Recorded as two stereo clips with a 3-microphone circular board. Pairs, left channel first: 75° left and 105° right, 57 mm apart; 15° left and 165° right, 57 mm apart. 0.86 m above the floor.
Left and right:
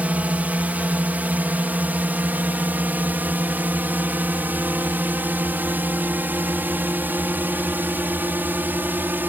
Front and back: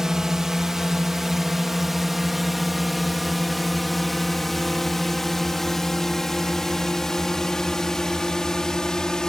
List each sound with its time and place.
0.0 s a drone: 95° right; by 9.3 s 60° right